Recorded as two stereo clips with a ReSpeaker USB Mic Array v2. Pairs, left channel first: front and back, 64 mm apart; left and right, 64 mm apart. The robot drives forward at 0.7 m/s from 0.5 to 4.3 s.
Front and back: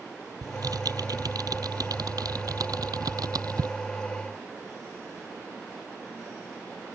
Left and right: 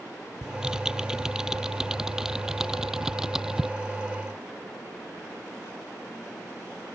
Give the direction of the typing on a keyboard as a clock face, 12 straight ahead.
6 o'clock.